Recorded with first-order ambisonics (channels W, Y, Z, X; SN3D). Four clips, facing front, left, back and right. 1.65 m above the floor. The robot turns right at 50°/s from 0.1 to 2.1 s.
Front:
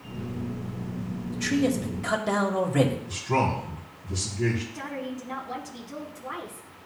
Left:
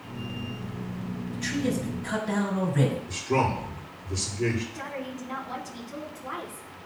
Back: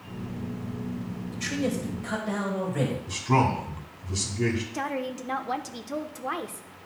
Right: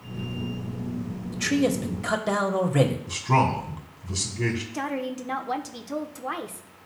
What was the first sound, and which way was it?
A man speaking, 95° right.